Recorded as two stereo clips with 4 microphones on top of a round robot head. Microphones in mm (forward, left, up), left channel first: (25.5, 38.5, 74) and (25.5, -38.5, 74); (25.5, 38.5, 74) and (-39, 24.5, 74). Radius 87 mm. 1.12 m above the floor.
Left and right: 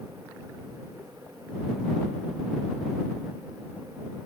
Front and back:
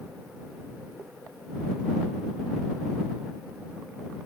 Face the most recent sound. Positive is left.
No sound to turn to.